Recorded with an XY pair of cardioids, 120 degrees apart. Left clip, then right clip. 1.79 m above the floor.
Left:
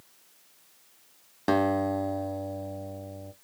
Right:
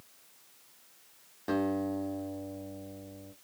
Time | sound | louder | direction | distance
1.5 | a guitar | left 7 dB | 60° left | 0.6 m